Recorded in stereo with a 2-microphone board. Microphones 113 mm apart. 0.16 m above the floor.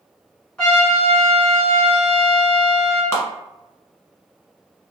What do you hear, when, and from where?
0.6 s a trumpet: 5° left (ahead or behind), 1.5 m
3.1 s a clap: 20° left (ahead or behind), 1.3 m